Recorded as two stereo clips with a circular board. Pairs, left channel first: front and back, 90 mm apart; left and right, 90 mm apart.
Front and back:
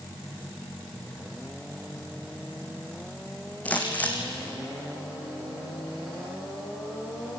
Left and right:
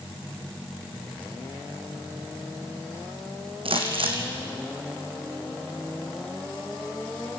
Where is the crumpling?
75° right, 3 m.